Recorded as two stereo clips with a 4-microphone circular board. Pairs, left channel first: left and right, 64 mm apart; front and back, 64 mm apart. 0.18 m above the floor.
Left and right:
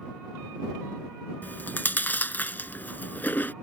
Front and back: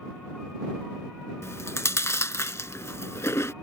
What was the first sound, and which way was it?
Chewing, 35° left.